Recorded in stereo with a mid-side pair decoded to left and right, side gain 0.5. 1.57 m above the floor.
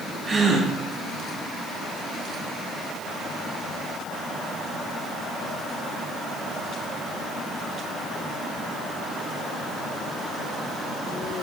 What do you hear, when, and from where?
0.3 s a gasp: 40° right, 4 m